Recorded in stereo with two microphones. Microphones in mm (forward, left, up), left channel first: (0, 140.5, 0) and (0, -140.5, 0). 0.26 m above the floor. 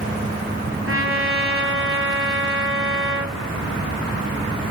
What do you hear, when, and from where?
0.9 s a trumpet: 45° right (ahead or behind), 6 m